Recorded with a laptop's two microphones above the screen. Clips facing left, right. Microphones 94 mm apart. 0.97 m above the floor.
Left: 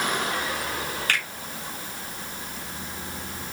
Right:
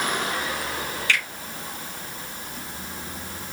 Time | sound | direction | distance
1.1 | a finger snap | 50° left (ahead or behind) | 2 m